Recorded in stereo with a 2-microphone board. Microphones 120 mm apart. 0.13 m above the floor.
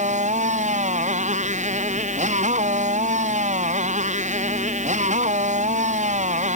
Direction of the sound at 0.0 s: 85° right.